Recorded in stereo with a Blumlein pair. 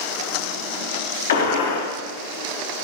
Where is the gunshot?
65° left, 1.1 m.